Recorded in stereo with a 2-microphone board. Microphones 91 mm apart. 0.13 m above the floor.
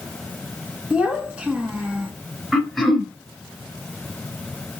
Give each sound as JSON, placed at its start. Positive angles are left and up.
{"t": 0.9, "sound": "a child speaking", "side_deg": -10, "distance_m": 1.0}
{"t": 2.5, "sound": "throat clearing", "side_deg": 0, "distance_m": 1.3}